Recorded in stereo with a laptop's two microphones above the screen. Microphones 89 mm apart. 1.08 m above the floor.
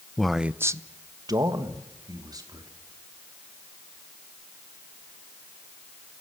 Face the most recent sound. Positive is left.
turn(degrees=-50)  # may be behind; listen again after turning